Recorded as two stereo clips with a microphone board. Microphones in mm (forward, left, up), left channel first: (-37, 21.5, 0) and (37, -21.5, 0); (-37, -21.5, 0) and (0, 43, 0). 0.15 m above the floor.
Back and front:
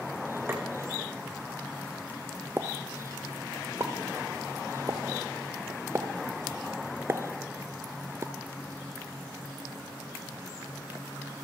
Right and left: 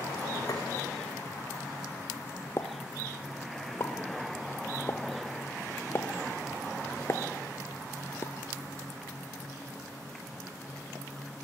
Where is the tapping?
90° right, 5.5 m.